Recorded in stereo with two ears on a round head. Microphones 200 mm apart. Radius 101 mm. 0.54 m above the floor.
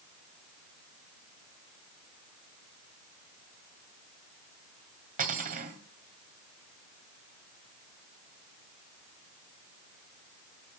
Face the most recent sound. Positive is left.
turn(degrees=-40)  # may be behind; listen again after turning